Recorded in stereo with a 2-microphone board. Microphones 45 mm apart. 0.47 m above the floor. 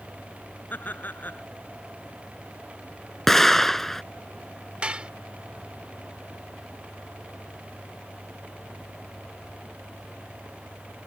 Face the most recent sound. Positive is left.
turn(degrees=-25)  # may be behind; listen again after turning